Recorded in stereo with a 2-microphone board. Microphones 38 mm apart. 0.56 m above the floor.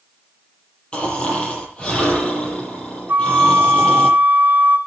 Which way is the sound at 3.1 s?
55° right (ahead or behind).